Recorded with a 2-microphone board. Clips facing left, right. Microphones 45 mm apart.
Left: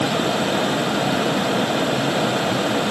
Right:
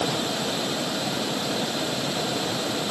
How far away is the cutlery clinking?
No cutlery clinking in this recording.